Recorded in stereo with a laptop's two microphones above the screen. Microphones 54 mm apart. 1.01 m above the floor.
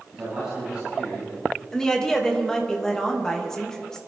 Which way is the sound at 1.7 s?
15° left (ahead or behind).